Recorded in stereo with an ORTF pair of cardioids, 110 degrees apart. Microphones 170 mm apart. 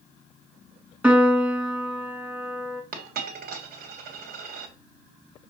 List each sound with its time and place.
1.0 s a piano: 10° right, 1.8 m
2.9 s a dropped coin: 65° right, 2.5 m